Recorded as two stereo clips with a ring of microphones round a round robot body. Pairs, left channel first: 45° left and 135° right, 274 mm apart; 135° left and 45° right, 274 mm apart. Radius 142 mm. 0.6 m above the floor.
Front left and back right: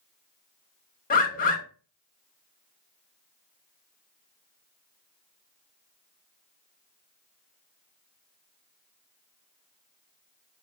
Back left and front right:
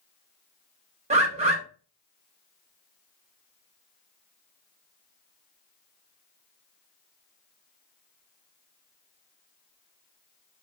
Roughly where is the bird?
Ahead.